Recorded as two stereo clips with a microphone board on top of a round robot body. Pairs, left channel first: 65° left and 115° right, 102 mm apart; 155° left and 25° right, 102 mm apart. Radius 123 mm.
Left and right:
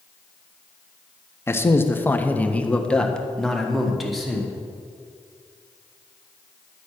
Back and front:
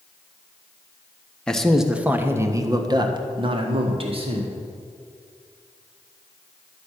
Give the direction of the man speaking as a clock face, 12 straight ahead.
9 o'clock.